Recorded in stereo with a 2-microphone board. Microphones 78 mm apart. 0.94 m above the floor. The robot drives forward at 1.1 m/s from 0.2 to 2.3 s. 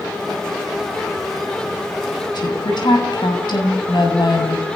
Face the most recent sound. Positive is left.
turn(degrees=70)  # may be behind; listen again after turning